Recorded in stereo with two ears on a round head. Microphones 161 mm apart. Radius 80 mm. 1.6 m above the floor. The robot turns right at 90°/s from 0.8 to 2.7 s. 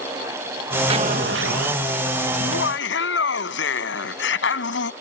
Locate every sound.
0.9 s an explosion: 150° right; by 1.8 s 65° right
2.4 s laughter: 75° left (ahead or behind)